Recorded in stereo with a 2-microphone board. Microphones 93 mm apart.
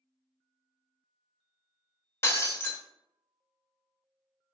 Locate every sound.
2.2 s breaking glass: 25° left (ahead or behind), 0.6 m